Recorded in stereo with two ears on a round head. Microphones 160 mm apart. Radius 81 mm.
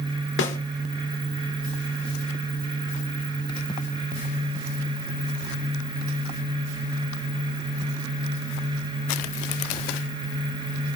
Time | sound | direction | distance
0.4 | a snare drum | 70° left (ahead or behind) | 2 m